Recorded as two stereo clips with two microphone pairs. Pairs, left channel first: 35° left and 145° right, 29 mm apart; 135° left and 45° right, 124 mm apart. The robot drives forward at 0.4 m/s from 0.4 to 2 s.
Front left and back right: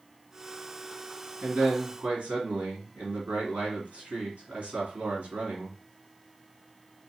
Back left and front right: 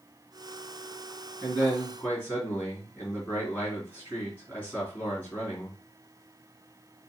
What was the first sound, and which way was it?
A man speaking, 145° right.